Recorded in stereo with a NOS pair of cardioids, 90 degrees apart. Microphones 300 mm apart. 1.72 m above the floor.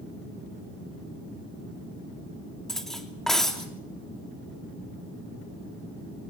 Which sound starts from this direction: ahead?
Cutlery clinking, at 2.7 s.